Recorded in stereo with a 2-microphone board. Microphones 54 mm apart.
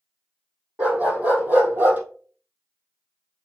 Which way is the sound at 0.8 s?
25° right (ahead or behind).